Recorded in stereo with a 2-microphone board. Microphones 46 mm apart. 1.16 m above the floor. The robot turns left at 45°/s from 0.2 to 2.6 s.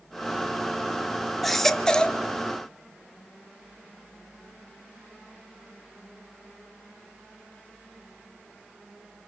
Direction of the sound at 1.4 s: 170° left.